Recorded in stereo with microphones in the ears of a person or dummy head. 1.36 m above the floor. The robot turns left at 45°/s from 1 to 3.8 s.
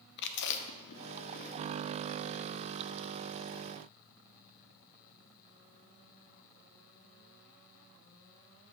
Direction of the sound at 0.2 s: 60° left (ahead or behind).